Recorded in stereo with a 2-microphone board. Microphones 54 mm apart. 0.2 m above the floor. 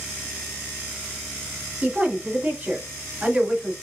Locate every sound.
1.8 s a woman speaking: 25° right (ahead or behind), 1.9 m